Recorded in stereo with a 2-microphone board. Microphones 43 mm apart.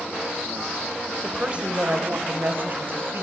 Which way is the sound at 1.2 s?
20° right (ahead or behind).